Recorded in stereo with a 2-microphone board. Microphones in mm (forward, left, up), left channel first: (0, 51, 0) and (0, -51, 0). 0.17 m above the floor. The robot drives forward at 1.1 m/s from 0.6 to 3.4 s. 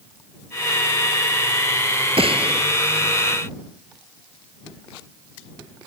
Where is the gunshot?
70° right (ahead or behind); by 2.6 s 65° right (ahead or behind).